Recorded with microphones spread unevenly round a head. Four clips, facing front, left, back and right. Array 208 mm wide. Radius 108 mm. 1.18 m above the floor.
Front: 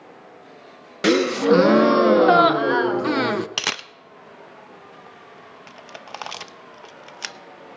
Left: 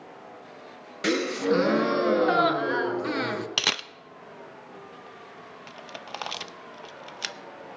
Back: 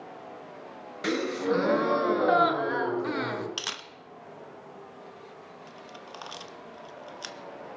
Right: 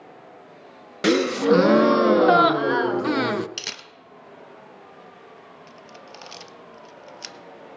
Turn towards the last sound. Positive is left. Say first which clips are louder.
# left 7 dB, front 9 dB
turn(degrees=40)